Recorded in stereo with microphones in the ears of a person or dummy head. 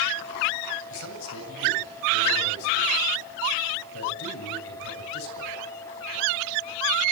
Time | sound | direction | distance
0.9 | a man speaking | 75° left (ahead or behind) | 8 m